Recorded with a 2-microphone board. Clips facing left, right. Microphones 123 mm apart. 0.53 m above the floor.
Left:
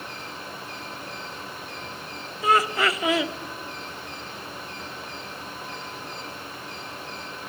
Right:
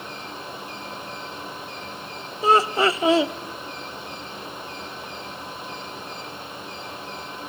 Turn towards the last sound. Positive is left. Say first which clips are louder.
# right 4 dB
turn(degrees=-25)  # may be behind; listen again after turning